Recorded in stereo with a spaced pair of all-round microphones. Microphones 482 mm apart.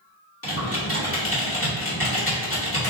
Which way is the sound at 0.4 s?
30° left (ahead or behind).